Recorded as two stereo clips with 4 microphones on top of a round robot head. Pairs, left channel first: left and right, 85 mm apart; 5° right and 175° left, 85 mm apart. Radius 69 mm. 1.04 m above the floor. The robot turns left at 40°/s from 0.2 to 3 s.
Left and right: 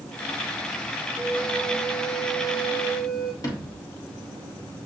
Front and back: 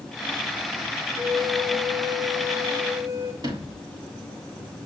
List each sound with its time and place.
1.2 s a flute: 160° right, 1.1 m; by 3.3 s 125° left, 1.1 m
3.4 s a sliding door: 135° left, 1.3 m